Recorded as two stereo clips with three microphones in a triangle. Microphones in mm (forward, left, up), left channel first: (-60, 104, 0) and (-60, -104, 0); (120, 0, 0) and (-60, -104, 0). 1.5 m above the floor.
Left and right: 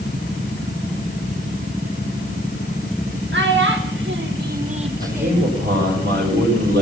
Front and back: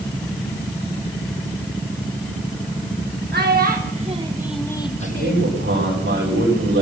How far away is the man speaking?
About 5.5 m.